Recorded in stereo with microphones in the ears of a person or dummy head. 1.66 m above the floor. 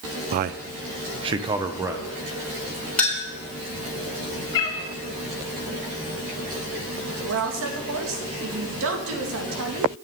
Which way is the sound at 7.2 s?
80° right.